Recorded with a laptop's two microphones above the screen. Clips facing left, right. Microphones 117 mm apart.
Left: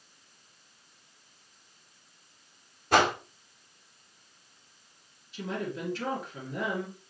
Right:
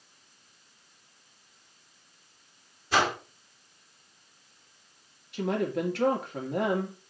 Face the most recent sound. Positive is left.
turn(degrees=-70)  # may be behind; listen again after turning